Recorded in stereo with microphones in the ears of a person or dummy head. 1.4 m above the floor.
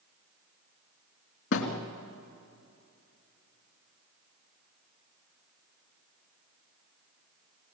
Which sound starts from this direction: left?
A thud, at 1.5 s.